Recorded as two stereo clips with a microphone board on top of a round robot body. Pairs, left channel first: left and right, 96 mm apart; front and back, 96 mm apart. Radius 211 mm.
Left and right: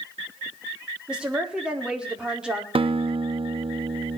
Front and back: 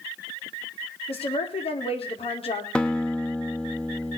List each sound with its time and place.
1.1 s a woman speaking: 10° right, 4.5 m
2.8 s a guitar: 80° right, 1.5 m